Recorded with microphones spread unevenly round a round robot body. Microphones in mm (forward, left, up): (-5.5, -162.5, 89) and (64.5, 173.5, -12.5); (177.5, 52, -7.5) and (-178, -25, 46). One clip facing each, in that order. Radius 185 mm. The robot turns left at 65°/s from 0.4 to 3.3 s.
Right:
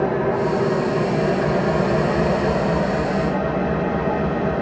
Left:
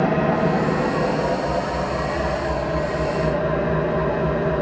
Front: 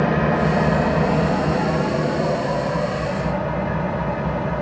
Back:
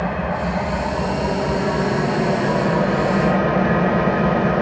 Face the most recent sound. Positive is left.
turn(degrees=-170)